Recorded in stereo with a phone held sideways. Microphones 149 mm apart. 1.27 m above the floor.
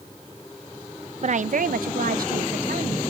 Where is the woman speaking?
50° right (ahead or behind), 0.6 m; by 3.0 s 80° right, 1.4 m.